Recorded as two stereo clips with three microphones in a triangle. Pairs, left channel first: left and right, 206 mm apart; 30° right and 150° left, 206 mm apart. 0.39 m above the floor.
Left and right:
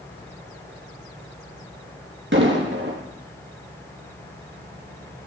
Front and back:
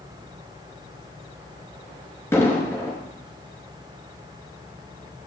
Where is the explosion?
105° right, 3 m.